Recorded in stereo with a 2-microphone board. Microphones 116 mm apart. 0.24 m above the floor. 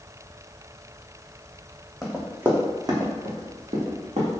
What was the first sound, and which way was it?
Running footsteps, centre (ahead or behind).